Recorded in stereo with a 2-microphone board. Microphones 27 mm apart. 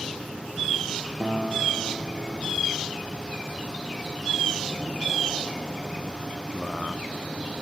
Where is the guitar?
10° left (ahead or behind), 5 m.